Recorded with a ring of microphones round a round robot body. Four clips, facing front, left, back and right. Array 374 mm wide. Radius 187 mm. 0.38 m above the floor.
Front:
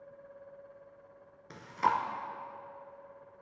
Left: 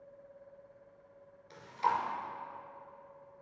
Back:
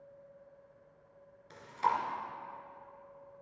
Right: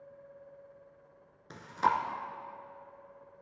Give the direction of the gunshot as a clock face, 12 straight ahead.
No gunshot in this recording.